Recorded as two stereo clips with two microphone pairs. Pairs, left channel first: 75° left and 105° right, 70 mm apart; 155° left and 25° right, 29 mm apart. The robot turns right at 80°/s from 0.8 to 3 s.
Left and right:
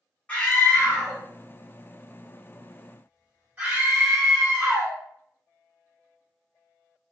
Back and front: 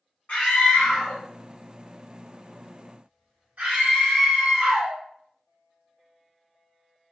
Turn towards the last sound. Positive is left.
turn(degrees=-45)